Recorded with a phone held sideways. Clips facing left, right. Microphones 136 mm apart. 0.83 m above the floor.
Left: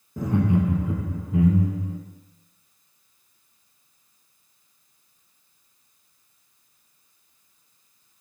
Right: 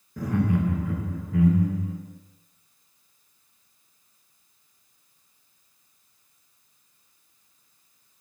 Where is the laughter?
20° left (ahead or behind), 0.5 m.